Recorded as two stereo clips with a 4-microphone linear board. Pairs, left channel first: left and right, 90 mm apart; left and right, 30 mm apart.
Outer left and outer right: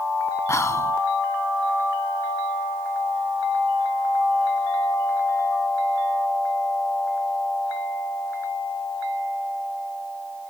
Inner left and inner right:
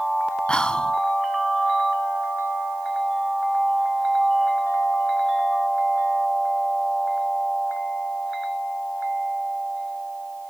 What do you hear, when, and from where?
0.5 s whispering: 35° left (ahead or behind), 1.2 m